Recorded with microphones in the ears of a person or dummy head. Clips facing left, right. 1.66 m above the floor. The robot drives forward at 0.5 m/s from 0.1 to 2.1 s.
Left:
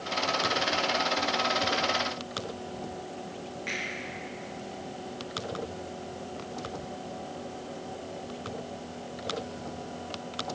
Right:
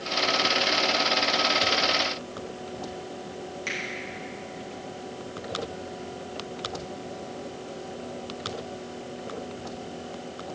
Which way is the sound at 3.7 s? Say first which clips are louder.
Right 2 dB; 55° right (ahead or behind).